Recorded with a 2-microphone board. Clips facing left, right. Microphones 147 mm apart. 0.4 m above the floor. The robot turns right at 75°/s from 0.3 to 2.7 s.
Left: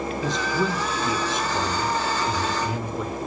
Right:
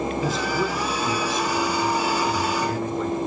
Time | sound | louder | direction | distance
0.2 | a man speaking | right 1 dB | 5° right (ahead or behind) | 1.1 m